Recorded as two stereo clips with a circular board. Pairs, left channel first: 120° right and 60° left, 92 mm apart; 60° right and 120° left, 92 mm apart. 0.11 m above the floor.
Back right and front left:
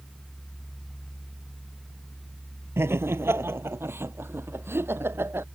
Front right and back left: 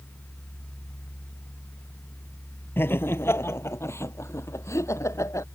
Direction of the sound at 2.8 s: Straight ahead.